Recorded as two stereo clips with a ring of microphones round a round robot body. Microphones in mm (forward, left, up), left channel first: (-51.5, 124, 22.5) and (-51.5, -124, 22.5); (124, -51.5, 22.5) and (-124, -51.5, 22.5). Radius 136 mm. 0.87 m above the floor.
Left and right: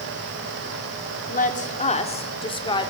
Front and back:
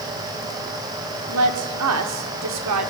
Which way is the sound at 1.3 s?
145° left.